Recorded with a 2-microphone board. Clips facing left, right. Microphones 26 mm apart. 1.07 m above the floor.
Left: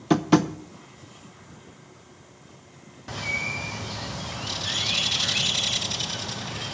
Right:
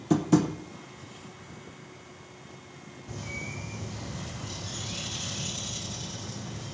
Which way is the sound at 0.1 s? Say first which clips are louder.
Left 3 dB; 40° left (ahead or behind).